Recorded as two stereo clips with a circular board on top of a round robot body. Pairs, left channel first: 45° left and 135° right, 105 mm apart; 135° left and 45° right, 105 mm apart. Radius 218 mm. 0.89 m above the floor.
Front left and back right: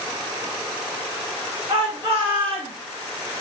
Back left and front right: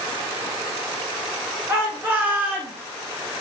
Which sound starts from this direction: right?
A shout, at 1.7 s.